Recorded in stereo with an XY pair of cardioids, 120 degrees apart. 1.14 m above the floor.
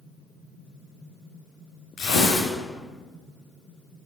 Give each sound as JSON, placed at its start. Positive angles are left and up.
{"t": 2.0, "sound": "tearing paper", "azimuth_deg": 65, "distance_m": 3.0}